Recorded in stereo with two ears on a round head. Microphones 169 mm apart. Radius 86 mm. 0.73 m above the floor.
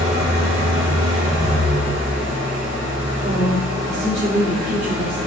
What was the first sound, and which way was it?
An engine running, 40° right (ahead or behind).